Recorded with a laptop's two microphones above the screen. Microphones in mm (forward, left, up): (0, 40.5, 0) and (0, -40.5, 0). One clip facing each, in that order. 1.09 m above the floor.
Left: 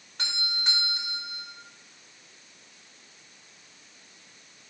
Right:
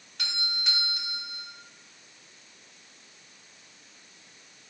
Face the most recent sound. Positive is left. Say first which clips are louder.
# left 1 dB
turn(degrees=35)  # may be behind; listen again after turning